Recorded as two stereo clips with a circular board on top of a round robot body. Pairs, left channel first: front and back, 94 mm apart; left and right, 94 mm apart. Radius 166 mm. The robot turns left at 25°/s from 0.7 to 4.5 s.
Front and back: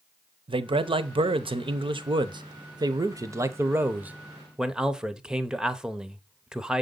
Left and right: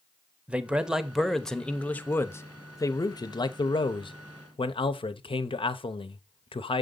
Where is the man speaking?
165° right, 0.8 m; by 6.8 s 100° left, 0.8 m.